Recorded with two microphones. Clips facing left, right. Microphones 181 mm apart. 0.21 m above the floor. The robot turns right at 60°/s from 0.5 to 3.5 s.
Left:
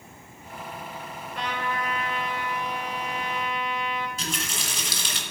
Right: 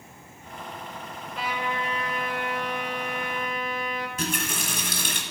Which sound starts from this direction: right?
A running tap, at 4.2 s.